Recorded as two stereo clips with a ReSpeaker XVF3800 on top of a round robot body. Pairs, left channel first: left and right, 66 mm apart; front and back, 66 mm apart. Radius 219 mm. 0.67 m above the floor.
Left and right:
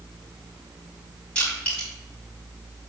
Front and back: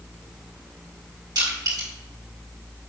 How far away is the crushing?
About 5 m.